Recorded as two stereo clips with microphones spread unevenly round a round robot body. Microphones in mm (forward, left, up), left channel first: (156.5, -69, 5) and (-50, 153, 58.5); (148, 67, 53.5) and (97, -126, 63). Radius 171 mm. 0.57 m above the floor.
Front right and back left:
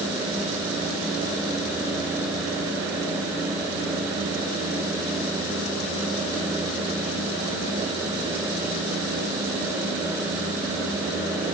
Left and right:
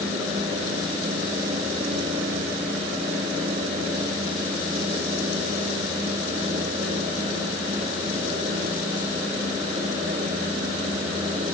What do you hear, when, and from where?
Only background noise.